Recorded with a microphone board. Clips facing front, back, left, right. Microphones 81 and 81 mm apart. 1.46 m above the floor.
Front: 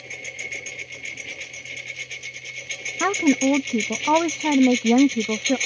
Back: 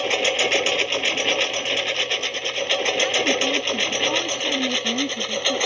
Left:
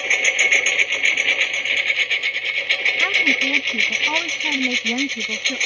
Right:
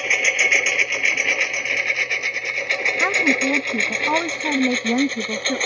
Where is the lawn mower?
175° right; by 5.7 s 145° right.